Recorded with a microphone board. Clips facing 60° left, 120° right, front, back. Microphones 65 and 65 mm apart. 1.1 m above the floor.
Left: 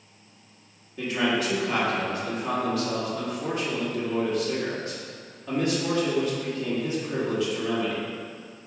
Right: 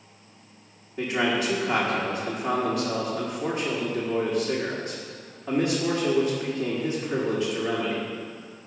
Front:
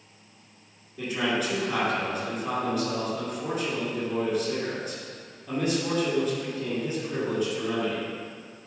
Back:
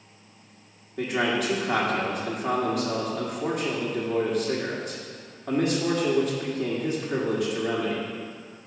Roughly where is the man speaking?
Behind.